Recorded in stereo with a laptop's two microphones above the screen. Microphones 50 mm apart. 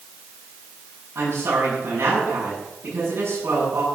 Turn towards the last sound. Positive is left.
turn(degrees=-55)  # may be behind; listen again after turning